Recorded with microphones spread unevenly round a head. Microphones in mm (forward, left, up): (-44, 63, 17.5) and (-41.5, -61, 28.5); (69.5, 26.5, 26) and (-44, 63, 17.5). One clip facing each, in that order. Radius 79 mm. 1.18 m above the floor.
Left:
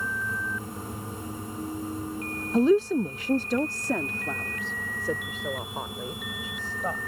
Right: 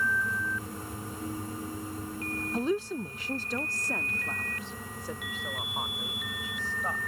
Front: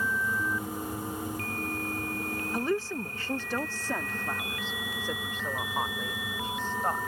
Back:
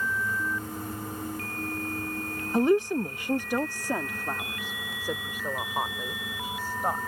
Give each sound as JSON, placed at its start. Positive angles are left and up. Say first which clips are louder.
{"t": 2.5, "sound": "a woman speaking", "louder": "left 10 dB, back 9 dB", "azimuth_deg": 95}